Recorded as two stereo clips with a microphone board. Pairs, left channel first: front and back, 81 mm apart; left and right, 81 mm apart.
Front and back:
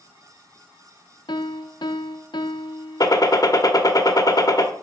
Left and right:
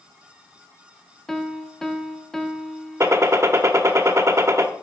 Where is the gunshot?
35° right, 1.1 m.